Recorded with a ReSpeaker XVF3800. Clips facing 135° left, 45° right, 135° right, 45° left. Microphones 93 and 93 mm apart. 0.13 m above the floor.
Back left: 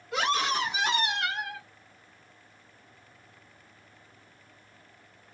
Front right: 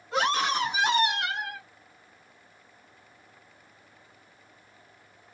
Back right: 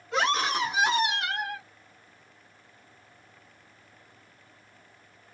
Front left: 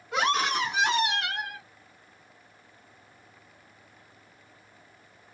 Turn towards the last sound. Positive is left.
turn(degrees=-120)